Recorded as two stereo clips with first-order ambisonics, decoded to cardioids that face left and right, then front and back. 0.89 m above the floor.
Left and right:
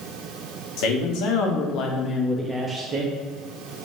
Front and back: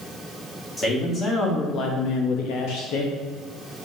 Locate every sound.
0.8 s a man speaking: 80° left, 1.3 m; by 3.1 s 35° right, 0.8 m